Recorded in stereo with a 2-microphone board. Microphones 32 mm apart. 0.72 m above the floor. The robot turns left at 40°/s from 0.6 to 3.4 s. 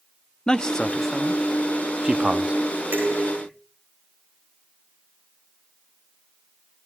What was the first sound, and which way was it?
A man speaking, 25° left (ahead or behind).